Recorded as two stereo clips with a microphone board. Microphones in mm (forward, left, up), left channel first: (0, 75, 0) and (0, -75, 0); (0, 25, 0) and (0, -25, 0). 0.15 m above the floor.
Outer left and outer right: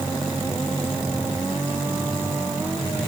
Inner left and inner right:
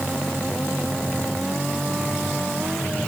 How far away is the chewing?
No chewing in this recording.